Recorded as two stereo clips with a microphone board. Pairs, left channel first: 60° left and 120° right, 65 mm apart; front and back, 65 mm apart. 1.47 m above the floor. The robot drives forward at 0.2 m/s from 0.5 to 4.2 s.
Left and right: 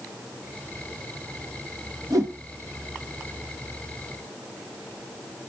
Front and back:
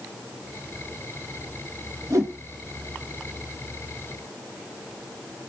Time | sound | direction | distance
2.1 | a whoosh | 150° right | 1.4 m